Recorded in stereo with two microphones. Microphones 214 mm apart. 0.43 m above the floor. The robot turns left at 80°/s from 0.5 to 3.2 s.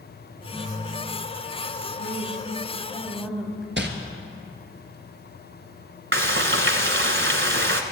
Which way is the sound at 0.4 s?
175° right.